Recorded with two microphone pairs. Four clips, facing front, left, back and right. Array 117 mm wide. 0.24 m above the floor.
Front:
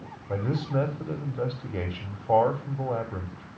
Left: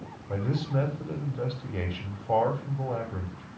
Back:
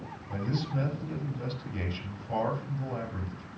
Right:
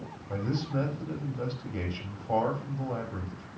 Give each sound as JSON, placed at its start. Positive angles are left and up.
{"t": 0.3, "sound": "a man speaking", "azimuth_deg": 10, "distance_m": 7.0}